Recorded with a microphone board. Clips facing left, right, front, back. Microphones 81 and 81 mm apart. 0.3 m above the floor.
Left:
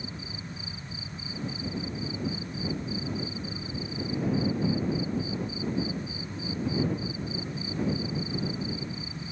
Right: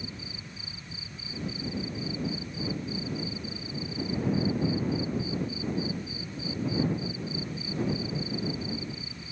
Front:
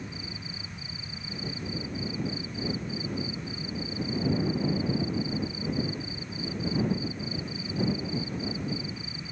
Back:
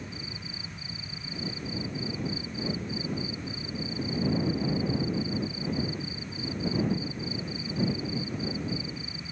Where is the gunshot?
I don't hear a gunshot.